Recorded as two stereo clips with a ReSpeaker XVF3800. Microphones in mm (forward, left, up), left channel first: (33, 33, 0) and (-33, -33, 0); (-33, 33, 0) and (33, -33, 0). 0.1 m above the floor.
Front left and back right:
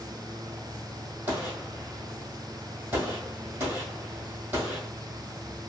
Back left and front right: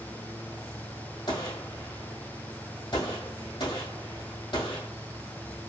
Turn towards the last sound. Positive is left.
turn(degrees=155)